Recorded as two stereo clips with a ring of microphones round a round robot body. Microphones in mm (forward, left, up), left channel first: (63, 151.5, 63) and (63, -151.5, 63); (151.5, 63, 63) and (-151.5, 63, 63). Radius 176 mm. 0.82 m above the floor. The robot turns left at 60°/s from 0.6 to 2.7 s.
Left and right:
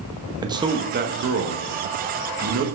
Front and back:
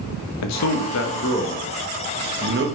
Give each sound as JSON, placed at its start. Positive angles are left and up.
{"t": 0.4, "sound": "a man speaking", "azimuth_deg": -15, "distance_m": 1.0}